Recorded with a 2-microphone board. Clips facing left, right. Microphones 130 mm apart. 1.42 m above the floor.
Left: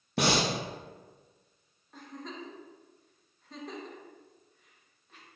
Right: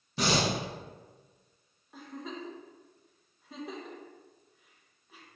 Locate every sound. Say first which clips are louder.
0.2 s breathing: left 1 dB; 70° left (ahead or behind), 0.7 m
1.9 s a giggle: right 2 dB; 5° right (ahead or behind), 0.6 m